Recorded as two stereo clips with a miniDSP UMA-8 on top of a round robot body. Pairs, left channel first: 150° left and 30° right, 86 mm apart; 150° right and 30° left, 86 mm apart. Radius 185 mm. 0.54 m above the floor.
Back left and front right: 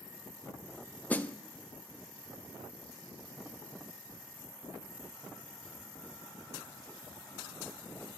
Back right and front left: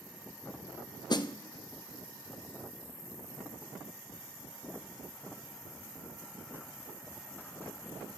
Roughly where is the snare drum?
Behind right.